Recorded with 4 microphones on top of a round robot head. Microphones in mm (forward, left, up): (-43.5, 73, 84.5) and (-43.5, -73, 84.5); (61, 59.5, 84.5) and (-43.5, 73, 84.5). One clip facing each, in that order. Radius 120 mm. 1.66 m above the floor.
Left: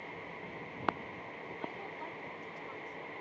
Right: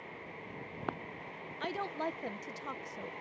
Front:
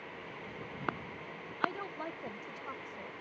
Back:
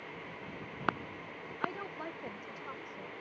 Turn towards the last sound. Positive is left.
turn(degrees=-90)